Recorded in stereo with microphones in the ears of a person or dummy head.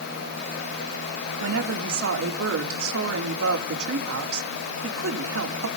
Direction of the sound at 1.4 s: 85° right.